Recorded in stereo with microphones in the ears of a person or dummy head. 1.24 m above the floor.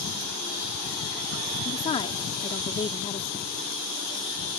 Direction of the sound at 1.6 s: 25° left (ahead or behind).